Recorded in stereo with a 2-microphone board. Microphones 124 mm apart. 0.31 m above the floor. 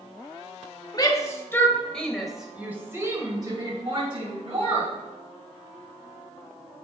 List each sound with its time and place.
0.9 s a shout: 30° left (ahead or behind), 1.4 m; by 4.9 s 55° right (ahead or behind), 1.9 m